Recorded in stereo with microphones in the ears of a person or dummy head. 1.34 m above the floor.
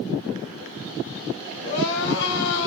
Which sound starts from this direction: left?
Crying, at 1.6 s.